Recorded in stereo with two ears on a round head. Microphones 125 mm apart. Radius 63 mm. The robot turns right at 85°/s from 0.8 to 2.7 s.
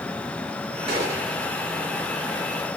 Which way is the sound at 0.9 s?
40° right.